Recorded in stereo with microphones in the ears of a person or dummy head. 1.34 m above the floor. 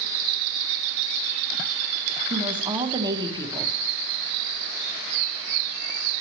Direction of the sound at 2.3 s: 20° right (ahead or behind).